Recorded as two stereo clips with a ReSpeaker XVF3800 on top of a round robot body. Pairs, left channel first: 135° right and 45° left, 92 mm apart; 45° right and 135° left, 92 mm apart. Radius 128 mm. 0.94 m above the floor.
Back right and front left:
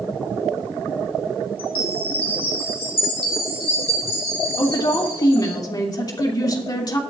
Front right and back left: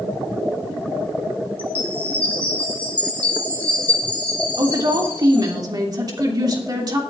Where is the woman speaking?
Straight behind, 2.5 m.